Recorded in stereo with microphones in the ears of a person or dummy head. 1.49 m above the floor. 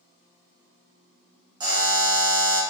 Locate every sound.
1.6 s a buzzer: 15° right (ahead or behind), 0.8 m